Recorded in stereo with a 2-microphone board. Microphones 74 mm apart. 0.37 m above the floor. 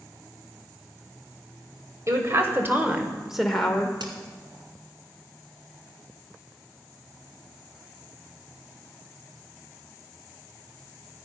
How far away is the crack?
About 1.7 m.